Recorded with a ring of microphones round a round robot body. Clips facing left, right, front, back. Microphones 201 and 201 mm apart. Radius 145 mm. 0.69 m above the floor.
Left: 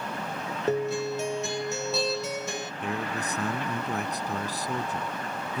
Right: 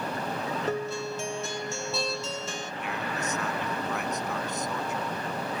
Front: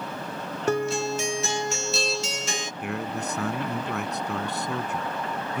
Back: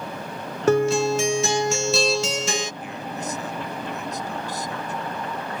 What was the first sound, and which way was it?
A guitar, 170° left.